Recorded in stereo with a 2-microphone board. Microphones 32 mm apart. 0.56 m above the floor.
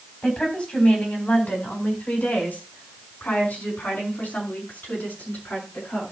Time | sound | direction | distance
0.2 | a woman speaking | 40° left (ahead or behind) | 3.5 m